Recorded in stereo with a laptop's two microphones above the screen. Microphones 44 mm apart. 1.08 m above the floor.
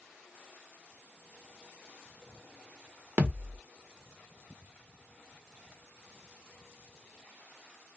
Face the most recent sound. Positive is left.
turn(degrees=-50)  # may be behind; listen again after turning